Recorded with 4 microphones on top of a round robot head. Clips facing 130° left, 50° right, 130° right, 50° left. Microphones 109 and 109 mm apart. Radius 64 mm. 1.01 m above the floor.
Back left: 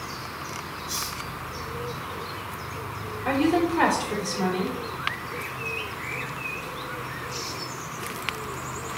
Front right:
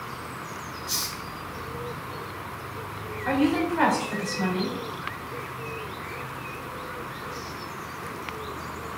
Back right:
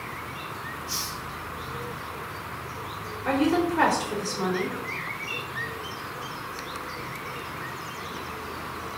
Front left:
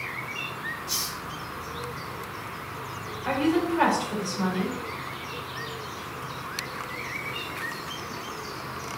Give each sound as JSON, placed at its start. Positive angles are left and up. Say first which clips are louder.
{"t": 0.9, "sound": "a hiss", "louder": "back left 1 dB, even", "azimuth_deg": -20, "distance_m": 0.9}
{"t": 3.2, "sound": "a woman speaking", "louder": "back left 1 dB, back right 1 dB", "azimuth_deg": -175, "distance_m": 3.0}